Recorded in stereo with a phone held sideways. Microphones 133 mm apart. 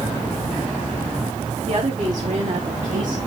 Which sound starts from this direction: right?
A woman speaking, at 1.7 s.